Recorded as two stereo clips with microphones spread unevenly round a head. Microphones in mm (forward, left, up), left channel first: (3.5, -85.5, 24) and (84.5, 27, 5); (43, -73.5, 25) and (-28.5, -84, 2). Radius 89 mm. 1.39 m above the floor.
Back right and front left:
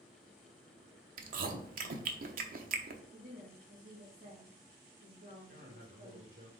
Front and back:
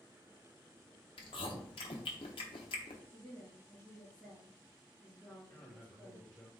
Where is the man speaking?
85° left, 2 m.